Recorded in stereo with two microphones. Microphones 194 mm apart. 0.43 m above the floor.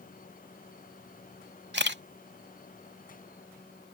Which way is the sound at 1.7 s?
65° right (ahead or behind).